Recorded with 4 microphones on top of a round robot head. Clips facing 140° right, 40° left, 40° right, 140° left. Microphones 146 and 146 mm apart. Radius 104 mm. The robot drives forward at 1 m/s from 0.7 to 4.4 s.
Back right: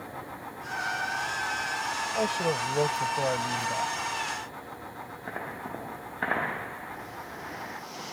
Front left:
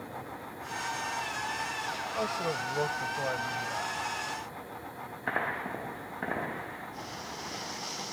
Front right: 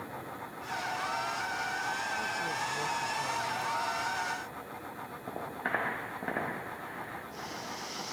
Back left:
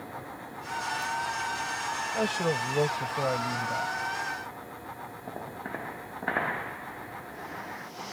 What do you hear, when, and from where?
2.1 s a man speaking: 150° left; by 3.9 s 155° left